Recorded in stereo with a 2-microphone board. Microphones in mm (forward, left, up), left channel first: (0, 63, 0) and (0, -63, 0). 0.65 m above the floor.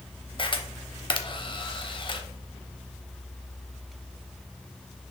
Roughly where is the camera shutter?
Left.